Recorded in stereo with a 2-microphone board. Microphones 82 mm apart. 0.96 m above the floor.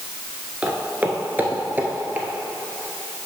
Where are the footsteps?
15° right (ahead or behind), 0.9 m; by 2.3 s 20° right (ahead or behind), 1.3 m.